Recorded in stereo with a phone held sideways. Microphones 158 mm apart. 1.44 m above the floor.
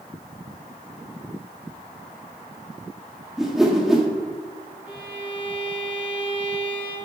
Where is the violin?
10° right (ahead or behind), 1.6 m.